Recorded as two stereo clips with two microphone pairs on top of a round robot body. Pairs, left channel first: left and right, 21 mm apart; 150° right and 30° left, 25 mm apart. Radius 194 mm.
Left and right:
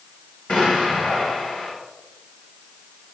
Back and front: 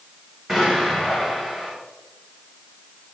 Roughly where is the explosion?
Left.